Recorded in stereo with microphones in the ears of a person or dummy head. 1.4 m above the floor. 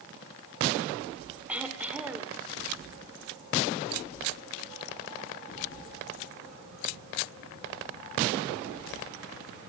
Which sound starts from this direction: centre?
Throat clearing, at 1.5 s.